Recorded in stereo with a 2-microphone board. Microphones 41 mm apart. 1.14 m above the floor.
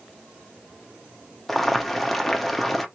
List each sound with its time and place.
1.5 s boiling: centre (ahead or behind), 0.9 m